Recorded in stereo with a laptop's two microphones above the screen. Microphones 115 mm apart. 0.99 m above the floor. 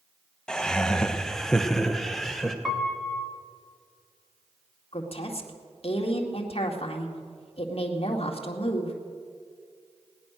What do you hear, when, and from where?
0.5 s laughter: 5° left (ahead or behind), 1.1 m; by 2.5 s centre (ahead or behind), 0.9 m
2.6 s a piano: centre (ahead or behind), 1.7 m
4.9 s a woman speaking: 60° left (ahead or behind), 2.0 m